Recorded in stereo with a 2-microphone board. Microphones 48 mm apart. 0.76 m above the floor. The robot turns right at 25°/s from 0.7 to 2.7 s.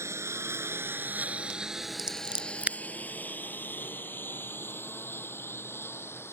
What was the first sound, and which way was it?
A lawn mower, 75° right (ahead or behind).